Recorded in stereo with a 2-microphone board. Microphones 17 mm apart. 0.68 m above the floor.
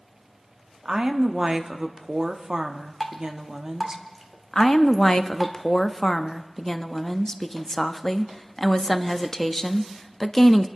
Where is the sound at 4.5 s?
30° left (ahead or behind), 0.5 m.